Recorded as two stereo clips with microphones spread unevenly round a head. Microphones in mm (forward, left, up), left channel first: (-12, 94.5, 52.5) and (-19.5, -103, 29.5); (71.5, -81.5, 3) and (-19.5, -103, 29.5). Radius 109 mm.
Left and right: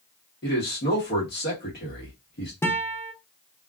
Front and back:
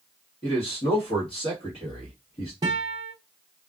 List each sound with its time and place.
0.4 s a man speaking: 45° left, 1.2 m
2.6 s a guitar: 165° left, 0.6 m